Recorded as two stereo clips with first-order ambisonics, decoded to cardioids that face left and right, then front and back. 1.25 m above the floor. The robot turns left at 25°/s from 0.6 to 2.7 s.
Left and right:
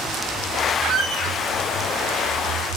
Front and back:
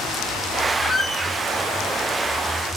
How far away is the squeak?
About 0.8 m.